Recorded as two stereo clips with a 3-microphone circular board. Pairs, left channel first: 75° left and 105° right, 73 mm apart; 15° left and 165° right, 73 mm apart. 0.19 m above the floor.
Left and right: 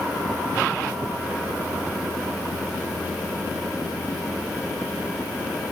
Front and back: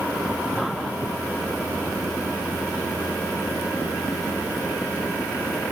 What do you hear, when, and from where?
Only background noise.